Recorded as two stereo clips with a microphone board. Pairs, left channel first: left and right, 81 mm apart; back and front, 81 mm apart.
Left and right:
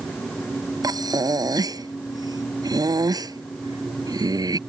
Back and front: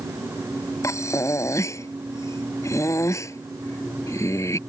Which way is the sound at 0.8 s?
130° right.